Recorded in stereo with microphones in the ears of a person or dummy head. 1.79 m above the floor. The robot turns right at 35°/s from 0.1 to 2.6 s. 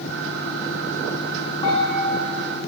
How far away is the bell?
About 4 m.